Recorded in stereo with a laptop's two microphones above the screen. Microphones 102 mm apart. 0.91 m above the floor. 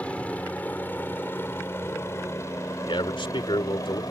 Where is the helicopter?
10° left (ahead or behind); by 4.1 s 35° left (ahead or behind).